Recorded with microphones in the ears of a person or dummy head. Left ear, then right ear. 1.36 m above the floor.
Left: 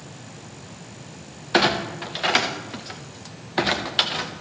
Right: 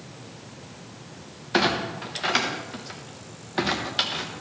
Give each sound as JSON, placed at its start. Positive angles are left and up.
{"t": 1.5, "sound": "a clunk", "side_deg": 20, "distance_m": 0.8}